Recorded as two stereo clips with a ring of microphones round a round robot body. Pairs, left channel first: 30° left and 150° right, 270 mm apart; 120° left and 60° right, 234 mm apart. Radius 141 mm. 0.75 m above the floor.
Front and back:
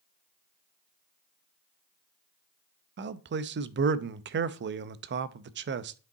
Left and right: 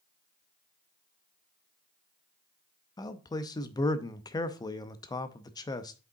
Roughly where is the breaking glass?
I don't hear breaking glass.